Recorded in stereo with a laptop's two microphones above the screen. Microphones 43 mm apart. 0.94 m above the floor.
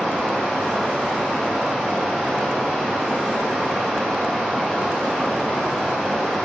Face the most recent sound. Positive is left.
turn(degrees=10)  # may be behind; listen again after turning